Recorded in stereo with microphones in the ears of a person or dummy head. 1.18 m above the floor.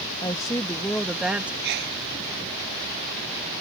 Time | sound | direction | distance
0.2 | a woman speaking | 25° left (ahead or behind) | ?
1.6 | a sneeze | 60° right (ahead or behind) | ?